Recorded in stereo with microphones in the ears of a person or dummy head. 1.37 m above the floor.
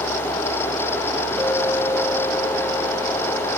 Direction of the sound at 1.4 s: 10° left (ahead or behind).